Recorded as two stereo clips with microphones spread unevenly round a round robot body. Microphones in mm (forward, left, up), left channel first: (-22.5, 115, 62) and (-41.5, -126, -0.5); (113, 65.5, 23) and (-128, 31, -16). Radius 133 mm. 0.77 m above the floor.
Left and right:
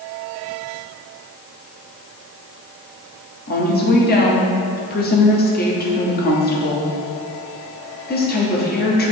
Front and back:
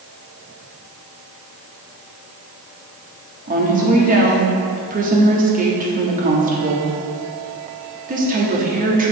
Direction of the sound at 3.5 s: 140° left.